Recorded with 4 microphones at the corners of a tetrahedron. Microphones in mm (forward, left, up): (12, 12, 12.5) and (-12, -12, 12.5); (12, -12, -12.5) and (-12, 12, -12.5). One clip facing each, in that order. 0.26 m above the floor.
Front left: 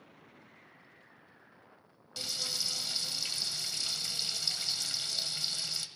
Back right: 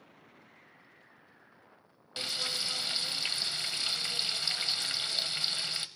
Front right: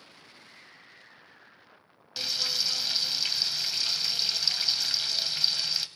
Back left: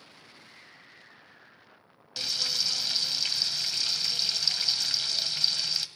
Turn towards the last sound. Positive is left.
turn(degrees=-125)